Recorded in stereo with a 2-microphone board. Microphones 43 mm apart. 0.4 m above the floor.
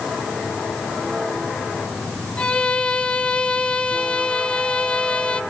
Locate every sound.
2.4 s a violin: 20° left (ahead or behind), 1.2 m